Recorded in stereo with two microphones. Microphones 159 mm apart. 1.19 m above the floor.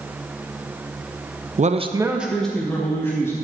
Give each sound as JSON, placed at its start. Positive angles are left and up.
{"t": 1.6, "sound": "a man speaking", "side_deg": -50, "distance_m": 0.7}